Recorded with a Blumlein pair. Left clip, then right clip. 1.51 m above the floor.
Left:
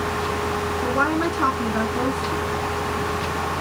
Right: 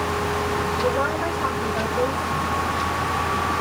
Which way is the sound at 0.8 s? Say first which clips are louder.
Left 4 dB; 60° left.